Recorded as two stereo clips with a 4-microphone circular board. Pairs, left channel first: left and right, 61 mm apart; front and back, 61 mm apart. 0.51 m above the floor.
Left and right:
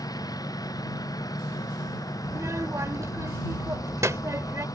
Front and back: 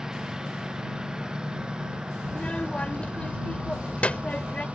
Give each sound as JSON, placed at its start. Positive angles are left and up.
{"t": 0.0, "sound": "a lawn mower", "azimuth_deg": 100}
{"t": 2.2, "sound": "a child speaking", "azimuth_deg": -65}